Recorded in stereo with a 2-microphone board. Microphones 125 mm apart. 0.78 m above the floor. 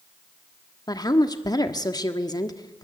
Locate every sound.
0.9 s a woman speaking: 35° left (ahead or behind), 1.4 m